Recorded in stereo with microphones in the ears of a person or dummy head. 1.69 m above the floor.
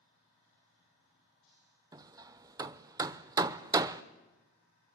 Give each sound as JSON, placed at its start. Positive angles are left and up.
{"t": 1.9, "sound": "hammering", "side_deg": -20, "distance_m": 0.6}